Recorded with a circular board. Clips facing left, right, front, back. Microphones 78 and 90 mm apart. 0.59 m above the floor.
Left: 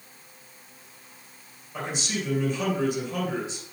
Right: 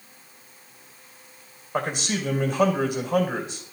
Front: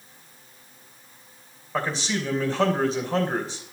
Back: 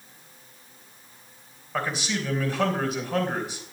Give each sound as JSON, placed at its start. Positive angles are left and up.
{"t": 1.7, "sound": "a man speaking", "azimuth_deg": -60, "distance_m": 2.5}